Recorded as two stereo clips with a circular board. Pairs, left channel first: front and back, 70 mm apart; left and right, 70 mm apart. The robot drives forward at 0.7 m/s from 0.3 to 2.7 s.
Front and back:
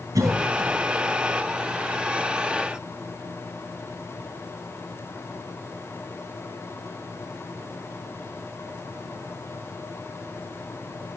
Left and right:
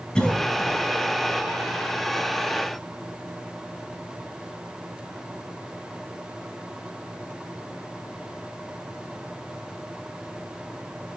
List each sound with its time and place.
0.1 s a cough: 165° left, 0.8 m; by 0.8 s 170° left, 1.1 m